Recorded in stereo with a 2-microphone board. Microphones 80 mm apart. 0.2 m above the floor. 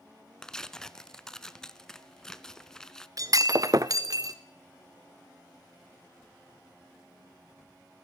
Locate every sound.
0.4 s tearing paper: 10° left (ahead or behind), 0.7 m
3.2 s breaking glass: 45° right (ahead or behind), 0.8 m